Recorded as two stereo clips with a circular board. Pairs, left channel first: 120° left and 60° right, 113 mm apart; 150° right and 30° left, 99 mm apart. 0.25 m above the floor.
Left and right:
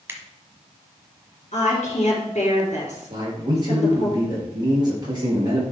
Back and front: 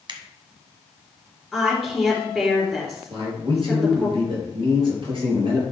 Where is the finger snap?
5° left, 1.4 m.